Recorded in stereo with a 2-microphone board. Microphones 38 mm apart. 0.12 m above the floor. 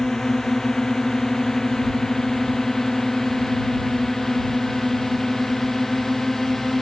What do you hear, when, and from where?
0.0 s a drone: 10° left (ahead or behind); by 6.8 s 5° left (ahead or behind)